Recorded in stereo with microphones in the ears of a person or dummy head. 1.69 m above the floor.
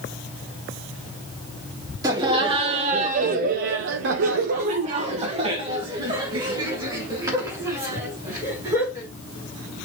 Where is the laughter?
20° right (ahead or behind), 1.3 m; by 9.1 s 15° right (ahead or behind), 3.5 m.